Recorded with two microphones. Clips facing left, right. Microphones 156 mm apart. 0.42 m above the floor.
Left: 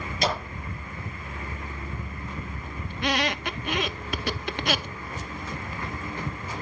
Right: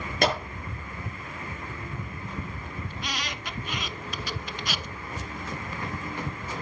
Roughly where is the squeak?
Left.